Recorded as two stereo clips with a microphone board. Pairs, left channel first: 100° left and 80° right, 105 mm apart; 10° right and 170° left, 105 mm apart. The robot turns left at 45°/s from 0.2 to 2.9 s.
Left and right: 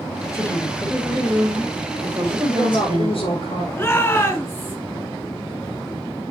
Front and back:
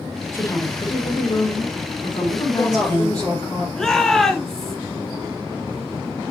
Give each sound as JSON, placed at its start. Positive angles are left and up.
{"t": 0.3, "sound": "a woman speaking", "azimuth_deg": 50, "distance_m": 2.5}
{"t": 2.4, "sound": "a woman speaking", "azimuth_deg": 95, "distance_m": 5.0}
{"t": 3.8, "sound": "a shout", "azimuth_deg": 70, "distance_m": 1.2}